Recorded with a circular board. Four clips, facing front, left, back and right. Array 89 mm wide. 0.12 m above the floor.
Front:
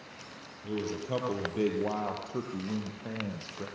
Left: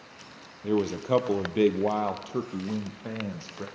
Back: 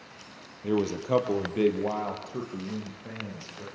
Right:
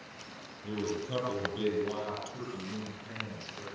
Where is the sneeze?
No sneeze in this recording.